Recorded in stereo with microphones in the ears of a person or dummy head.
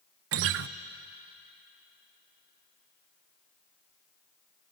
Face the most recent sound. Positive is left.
turn(degrees=-70)  # may be behind; listen again after turning